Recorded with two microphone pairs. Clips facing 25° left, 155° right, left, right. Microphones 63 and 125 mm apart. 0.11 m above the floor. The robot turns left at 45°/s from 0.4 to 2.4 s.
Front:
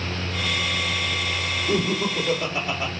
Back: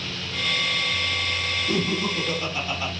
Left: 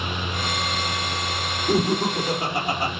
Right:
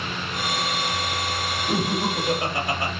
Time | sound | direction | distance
1.7 | laughter | 90° left | 1.4 m